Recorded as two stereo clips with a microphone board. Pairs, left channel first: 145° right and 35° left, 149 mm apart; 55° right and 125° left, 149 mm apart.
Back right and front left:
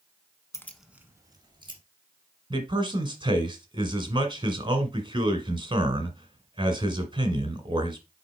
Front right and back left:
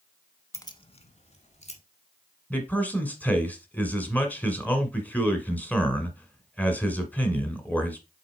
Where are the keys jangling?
105° right, 0.8 m; by 1.8 s 20° right, 2 m.